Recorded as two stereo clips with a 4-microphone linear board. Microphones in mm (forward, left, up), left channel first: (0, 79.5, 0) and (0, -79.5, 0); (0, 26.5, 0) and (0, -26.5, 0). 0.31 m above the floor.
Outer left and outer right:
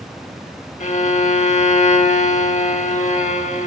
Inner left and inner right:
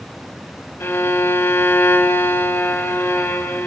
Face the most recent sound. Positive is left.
turn(degrees=50)  # may be behind; listen again after turning